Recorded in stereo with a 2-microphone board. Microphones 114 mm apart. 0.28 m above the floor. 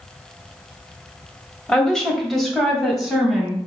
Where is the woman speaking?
10° left (ahead or behind), 1.1 m; by 3.6 s 5° right (ahead or behind), 1.8 m.